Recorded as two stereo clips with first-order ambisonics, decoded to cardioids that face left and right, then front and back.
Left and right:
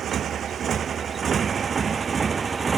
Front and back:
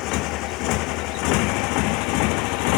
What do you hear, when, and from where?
0.0 s a motorcycle: 30° right; by 2.8 s 15° right